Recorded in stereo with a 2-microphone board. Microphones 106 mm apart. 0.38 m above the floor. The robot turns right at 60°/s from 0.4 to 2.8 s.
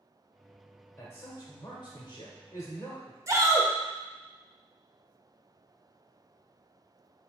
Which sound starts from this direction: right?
A shout, at 3.3 s.